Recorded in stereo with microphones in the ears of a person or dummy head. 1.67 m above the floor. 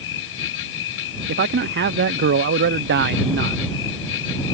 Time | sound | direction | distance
0.0 | an insect | 70° left (ahead or behind) | ?
1.3 | a man speaking | 55° right (ahead or behind) | ?